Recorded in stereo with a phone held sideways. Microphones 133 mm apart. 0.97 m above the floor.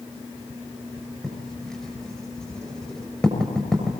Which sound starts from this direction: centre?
Writing, at 1.2 s.